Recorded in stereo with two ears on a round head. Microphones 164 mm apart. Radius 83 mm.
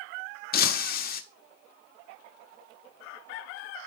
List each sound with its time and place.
0.5 s breaking glass: 55° left (ahead or behind), 0.7 m